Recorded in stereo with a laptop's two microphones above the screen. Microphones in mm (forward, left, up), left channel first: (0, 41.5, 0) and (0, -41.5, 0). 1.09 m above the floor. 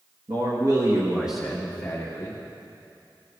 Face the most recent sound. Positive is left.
turn(degrees=30)  # may be behind; listen again after turning